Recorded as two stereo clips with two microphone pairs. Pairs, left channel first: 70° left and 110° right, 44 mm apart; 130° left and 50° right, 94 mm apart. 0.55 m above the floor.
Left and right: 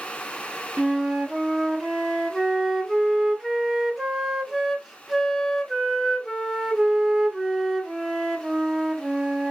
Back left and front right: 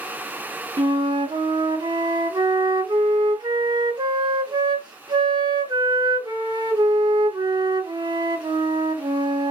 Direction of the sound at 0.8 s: 30° right.